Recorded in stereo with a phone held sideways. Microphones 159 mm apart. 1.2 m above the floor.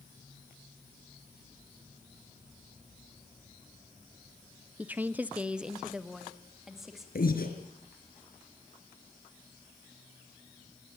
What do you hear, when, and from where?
4.8 s a woman speaking: 10° right (ahead or behind), 0.6 m; by 7.0 s 5° right (ahead or behind), 3 m
7.2 s breathing: 70° left (ahead or behind), 3.5 m